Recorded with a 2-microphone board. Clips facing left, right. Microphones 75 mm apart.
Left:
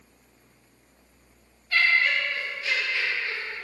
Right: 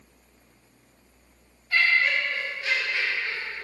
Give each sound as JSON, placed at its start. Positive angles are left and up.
{"t": 1.7, "sound": "laughter", "side_deg": -15, "distance_m": 0.8}